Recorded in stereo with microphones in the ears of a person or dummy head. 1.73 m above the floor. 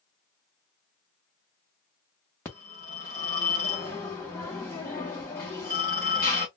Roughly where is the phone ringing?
Centre.